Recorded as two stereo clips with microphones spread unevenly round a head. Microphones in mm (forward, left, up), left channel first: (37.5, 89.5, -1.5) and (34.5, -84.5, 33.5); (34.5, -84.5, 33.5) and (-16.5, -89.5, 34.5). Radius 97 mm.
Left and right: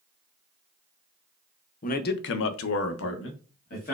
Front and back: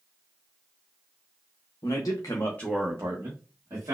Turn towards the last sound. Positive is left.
turn(degrees=140)